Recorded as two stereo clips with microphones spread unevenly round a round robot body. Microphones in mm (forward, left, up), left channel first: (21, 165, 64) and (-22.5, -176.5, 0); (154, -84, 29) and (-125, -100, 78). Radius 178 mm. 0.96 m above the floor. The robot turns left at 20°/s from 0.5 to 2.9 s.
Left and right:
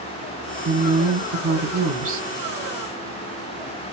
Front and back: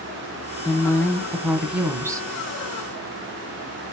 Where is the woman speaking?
60° right, 0.9 m; by 2.3 s 90° right, 0.9 m.